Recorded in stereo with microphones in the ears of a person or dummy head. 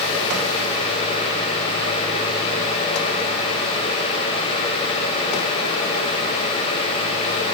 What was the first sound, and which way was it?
Only background noise.